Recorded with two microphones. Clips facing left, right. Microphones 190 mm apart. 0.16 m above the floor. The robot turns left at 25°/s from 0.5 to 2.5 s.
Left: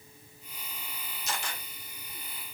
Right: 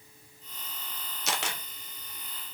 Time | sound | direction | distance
1.3 | a camera shutter | 80° right | 0.7 m